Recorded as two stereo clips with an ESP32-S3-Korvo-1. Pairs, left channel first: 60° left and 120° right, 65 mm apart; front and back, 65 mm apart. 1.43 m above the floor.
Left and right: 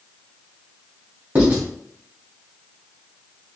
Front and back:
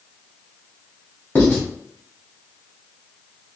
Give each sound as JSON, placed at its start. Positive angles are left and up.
{"t": 1.4, "sound": "writing", "azimuth_deg": -65, "distance_m": 1.9}